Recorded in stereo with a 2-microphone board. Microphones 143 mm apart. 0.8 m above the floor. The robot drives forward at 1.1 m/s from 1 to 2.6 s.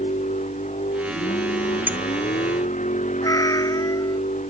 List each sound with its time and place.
0.0 s a vehicle: 55° left (ahead or behind); by 4.5 s 60° left (ahead or behind)
1.9 s a clink: 15° right (ahead or behind)
3.2 s a cat meowing: 25° left (ahead or behind)